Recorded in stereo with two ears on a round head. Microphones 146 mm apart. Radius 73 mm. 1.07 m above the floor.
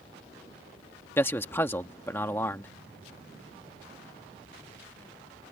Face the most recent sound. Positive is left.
turn(degrees=15)  # may be behind; listen again after turning